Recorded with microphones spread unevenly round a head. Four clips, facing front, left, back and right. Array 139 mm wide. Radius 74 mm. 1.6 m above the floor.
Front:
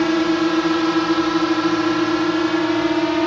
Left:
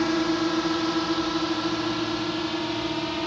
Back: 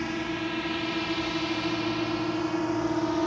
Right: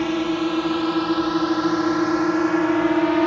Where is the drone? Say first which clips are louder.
Right 2 dB, front 14 dB; 5° right; by 3.3 s 55° right.